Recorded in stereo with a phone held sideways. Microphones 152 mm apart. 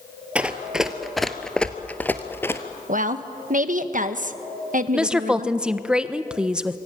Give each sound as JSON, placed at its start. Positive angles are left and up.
{"t": 0.3, "sound": "running footsteps", "side_deg": -10, "distance_m": 1.4}
{"t": 2.9, "sound": "a woman speaking", "side_deg": -60, "distance_m": 1.3}
{"t": 4.9, "sound": "a woman speaking", "side_deg": -5, "distance_m": 1.1}